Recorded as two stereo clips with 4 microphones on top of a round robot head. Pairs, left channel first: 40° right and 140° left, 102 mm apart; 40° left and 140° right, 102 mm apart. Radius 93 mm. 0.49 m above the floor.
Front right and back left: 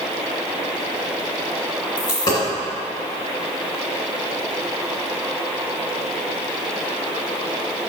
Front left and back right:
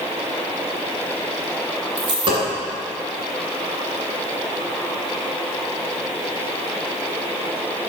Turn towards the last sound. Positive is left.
turn(degrees=-90)